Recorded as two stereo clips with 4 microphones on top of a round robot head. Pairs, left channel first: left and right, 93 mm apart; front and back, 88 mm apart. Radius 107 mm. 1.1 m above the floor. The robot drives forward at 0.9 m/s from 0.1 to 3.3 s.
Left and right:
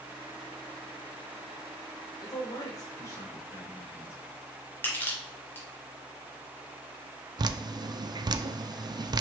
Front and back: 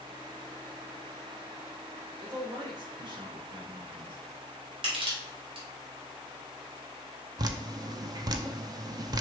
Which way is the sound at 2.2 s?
135° left.